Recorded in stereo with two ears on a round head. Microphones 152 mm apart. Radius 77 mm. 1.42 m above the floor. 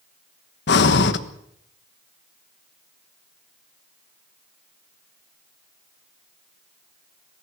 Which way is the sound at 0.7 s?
70° left (ahead or behind).